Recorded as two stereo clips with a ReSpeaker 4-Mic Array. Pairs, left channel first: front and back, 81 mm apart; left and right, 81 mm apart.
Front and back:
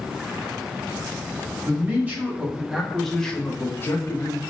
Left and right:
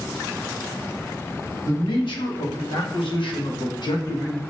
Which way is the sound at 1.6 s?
120° left.